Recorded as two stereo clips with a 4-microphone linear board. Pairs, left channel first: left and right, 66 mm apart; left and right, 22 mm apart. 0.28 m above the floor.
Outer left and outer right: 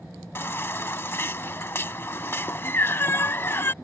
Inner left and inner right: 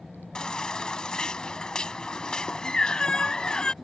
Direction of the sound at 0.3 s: 35° left (ahead or behind).